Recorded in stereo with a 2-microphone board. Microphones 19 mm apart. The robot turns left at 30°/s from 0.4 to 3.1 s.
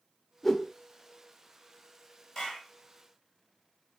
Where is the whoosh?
20° left (ahead or behind), 0.8 m; by 0.7 s 10° left (ahead or behind), 0.8 m.